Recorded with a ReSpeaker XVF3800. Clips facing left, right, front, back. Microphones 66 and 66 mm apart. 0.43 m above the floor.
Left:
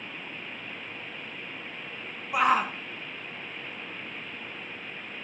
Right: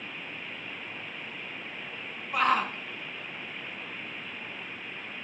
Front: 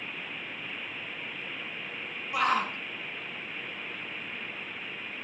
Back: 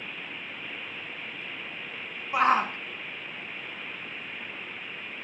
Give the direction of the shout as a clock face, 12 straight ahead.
7 o'clock.